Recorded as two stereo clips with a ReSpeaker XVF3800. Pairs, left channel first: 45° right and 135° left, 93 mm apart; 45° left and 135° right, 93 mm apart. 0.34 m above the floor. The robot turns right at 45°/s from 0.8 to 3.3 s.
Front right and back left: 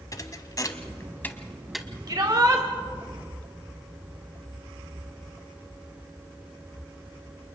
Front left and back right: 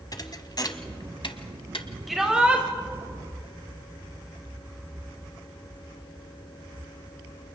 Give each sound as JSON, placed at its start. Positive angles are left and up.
{"t": 0.1, "sound": "a thud", "azimuth_deg": 5, "distance_m": 1.1}
{"t": 2.1, "sound": "a shout", "azimuth_deg": 135, "distance_m": 1.8}